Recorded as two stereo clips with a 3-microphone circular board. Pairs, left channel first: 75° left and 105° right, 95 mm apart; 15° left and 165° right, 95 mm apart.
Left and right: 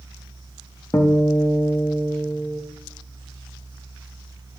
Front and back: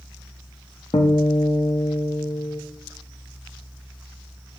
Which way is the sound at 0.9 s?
25° left.